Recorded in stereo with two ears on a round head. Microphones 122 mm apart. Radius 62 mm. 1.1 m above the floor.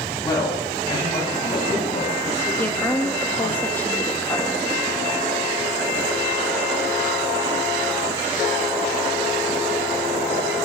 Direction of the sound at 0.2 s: 30° left (ahead or behind).